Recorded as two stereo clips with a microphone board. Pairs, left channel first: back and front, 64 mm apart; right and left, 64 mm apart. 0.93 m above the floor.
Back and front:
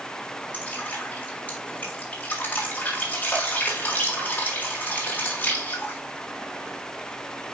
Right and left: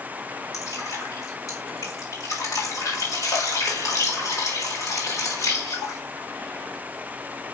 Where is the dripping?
115° right, 3.5 m.